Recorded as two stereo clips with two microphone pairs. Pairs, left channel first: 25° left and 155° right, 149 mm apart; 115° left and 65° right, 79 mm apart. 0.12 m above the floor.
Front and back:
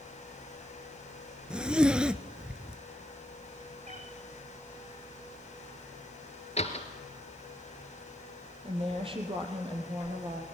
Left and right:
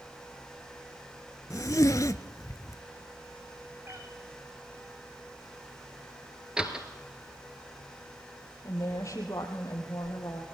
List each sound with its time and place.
1.5 s a zipper: 125° left, 0.7 m
3.9 s a cat meowing: 125° right, 3.5 m
6.6 s a door slam: 10° left, 1.8 m
8.6 s a woman speaking: 155° left, 4 m